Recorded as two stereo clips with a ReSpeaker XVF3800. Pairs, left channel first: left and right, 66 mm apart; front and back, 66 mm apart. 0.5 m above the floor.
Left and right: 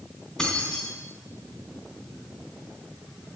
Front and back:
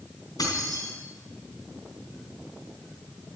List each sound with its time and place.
0.4 s keys jangling: 10° left, 4 m